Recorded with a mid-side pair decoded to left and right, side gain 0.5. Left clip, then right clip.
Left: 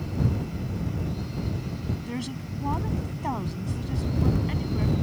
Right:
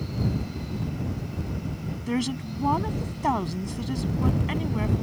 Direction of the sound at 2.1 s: 40° right.